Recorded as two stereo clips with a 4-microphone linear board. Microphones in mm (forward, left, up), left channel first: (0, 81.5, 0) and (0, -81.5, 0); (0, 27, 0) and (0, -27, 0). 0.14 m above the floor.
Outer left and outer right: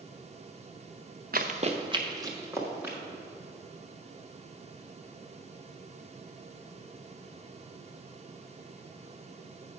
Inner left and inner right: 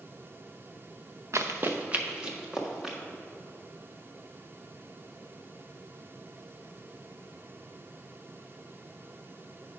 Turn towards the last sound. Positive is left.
turn(degrees=-10)  # may be behind; listen again after turning